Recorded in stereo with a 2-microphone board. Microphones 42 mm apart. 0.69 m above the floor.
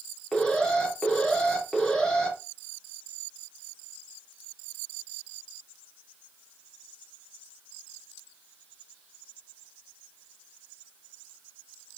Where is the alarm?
15° left (ahead or behind), 2.5 m.